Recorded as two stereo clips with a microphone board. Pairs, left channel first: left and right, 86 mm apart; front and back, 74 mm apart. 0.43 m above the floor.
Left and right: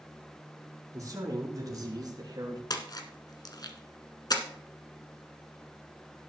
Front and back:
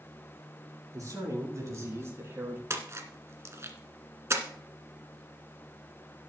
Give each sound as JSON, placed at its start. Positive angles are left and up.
{"t": 0.9, "sound": "a man speaking", "azimuth_deg": -140, "distance_m": 5.5}
{"t": 2.7, "sound": "a splash", "azimuth_deg": 130, "distance_m": 1.4}